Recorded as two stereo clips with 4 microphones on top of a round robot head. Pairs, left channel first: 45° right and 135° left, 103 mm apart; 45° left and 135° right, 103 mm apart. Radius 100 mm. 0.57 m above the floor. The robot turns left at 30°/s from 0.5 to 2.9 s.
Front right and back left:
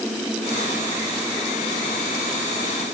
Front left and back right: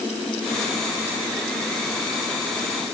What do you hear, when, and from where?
Only background noise.